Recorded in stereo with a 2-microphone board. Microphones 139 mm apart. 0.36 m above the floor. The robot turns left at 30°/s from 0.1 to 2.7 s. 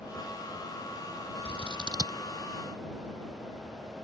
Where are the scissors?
45° right (ahead or behind); by 2.2 s 20° right (ahead or behind).